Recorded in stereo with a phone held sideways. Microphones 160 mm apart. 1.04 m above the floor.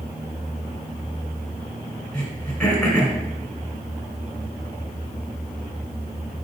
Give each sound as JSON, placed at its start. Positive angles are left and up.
{"t": 2.1, "sound": "throat clearing", "side_deg": 10, "distance_m": 1.7}